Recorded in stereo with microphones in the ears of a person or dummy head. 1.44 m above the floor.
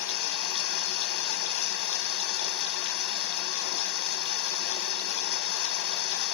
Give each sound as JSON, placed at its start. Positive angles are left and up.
{"t": 0.0, "sound": "running water", "side_deg": 70, "distance_m": 1.2}